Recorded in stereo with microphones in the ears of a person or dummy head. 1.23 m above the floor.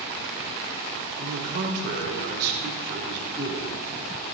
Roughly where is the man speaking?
Right.